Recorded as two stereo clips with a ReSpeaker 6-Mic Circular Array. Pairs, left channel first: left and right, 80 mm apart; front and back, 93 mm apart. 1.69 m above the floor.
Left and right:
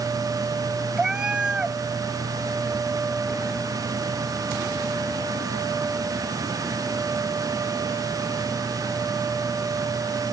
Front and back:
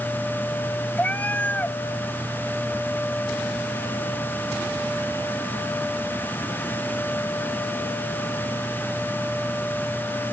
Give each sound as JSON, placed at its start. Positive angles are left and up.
{"t": 1.0, "sound": "a cat meowing", "azimuth_deg": -35}